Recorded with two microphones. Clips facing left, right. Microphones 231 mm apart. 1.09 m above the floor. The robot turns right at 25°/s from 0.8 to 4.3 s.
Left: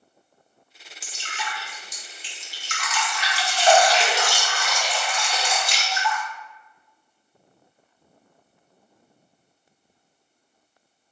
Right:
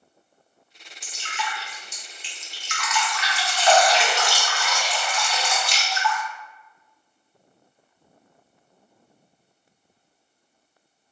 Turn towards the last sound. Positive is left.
turn(degrees=145)